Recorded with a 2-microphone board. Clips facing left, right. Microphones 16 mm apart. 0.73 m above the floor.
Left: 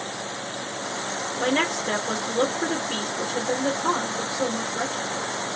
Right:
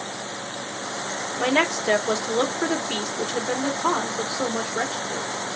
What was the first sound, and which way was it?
A woman speaking, 30° right (ahead or behind).